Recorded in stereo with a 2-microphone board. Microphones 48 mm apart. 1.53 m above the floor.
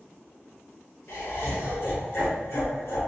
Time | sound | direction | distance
1.1 | laughter | 70° left (ahead or behind) | 0.9 m